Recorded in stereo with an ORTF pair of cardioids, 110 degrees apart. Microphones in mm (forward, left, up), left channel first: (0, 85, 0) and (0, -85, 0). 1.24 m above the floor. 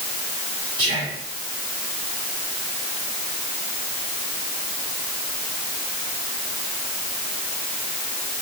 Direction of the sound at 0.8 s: 40° right.